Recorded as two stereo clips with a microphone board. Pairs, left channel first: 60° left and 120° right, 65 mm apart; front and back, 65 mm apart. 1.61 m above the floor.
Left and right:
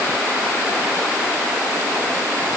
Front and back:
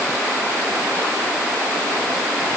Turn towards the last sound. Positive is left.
No sound to turn to.